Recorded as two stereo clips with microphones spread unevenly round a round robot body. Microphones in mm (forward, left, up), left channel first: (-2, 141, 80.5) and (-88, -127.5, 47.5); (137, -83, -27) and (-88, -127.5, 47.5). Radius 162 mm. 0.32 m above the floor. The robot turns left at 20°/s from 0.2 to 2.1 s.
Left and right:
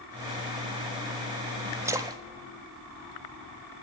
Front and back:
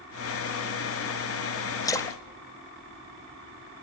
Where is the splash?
35° right, 0.6 m; by 2.2 s 40° right, 0.6 m.